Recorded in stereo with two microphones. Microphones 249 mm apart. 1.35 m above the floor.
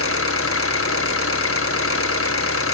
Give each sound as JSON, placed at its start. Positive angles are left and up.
{"t": 0.0, "sound": "an engine running", "side_deg": 60, "distance_m": 1.1}